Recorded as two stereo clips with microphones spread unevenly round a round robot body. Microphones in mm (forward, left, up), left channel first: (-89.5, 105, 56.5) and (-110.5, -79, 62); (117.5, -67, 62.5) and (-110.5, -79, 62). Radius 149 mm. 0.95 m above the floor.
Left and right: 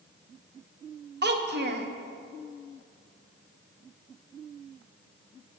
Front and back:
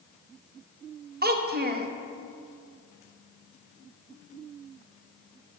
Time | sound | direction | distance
1.2 | a child speaking | 125° right | 1.0 m